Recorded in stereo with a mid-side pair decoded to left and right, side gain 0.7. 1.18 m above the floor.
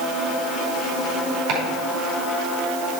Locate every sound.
1.5 s chopping: 55° right, 4.5 m